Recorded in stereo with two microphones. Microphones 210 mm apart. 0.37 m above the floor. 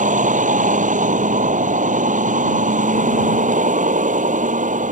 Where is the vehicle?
40° right (ahead or behind).